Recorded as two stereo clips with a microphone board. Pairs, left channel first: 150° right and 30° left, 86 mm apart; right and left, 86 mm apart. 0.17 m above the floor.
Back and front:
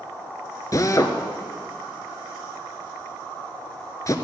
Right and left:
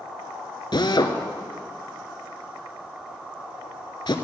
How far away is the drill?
About 0.9 m.